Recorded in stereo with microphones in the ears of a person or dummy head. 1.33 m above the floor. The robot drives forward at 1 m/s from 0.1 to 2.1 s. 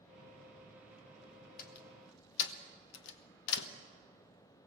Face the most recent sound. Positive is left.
turn(degrees=60)  # may be behind; listen again after turning